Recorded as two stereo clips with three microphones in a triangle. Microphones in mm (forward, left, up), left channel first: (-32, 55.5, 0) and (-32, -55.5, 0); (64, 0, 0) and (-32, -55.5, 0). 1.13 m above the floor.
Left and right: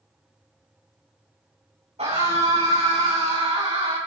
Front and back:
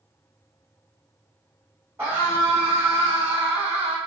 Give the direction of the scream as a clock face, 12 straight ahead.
3 o'clock.